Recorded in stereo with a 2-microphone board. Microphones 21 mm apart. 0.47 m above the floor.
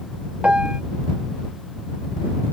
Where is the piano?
55° right (ahead or behind).